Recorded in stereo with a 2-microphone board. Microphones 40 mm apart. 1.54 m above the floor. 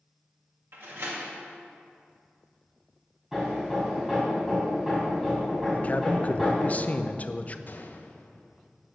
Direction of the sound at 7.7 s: 45° left (ahead or behind).